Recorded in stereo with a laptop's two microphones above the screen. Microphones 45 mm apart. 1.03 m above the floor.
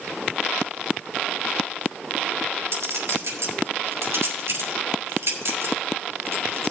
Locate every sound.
2.7 s a clink: 75° right (ahead or behind), 3.5 m